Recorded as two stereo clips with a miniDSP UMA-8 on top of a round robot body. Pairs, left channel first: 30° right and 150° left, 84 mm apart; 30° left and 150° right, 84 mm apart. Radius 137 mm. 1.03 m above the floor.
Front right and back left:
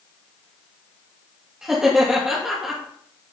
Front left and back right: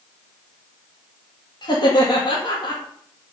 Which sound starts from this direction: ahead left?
Laughter, at 1.6 s.